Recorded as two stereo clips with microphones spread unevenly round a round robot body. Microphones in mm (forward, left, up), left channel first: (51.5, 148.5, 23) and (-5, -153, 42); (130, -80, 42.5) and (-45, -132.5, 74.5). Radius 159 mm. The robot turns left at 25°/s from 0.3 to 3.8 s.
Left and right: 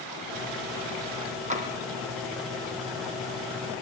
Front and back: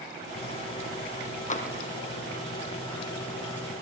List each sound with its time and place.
1.5 s tapping: 30° right, 4 m; by 1.7 s 35° right, 4 m